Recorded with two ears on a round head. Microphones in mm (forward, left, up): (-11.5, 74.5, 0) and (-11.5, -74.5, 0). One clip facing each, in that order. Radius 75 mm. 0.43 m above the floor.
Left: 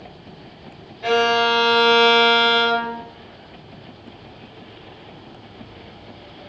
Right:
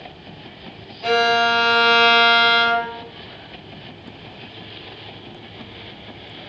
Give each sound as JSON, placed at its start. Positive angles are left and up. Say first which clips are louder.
{"t": 1.0, "sound": "a violin", "louder": "even", "side_deg": 5, "distance_m": 2.0}